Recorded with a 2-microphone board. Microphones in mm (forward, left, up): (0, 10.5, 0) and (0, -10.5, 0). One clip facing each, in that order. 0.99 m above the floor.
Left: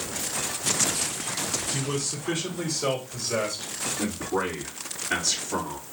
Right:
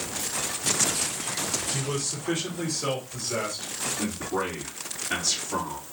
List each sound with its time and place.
1.7 s a man speaking: centre (ahead or behind), 2.5 m; by 3.9 s 25° left (ahead or behind), 2.5 m
4.0 s a man speaking: centre (ahead or behind), 2 m